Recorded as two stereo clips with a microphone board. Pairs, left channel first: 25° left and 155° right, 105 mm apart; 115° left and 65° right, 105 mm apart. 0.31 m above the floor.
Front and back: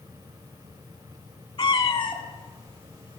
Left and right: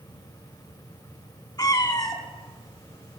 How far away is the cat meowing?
About 0.8 m.